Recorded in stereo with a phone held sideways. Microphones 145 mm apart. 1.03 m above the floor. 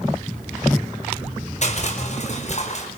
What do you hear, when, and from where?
1.6 s crushing: 50° left (ahead or behind), 4.5 m